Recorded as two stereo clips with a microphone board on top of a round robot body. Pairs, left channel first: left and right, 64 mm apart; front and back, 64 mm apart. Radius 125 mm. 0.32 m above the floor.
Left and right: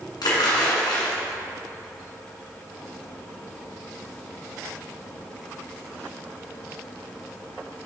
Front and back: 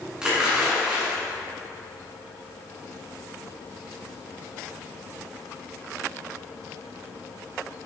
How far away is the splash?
About 1.8 m.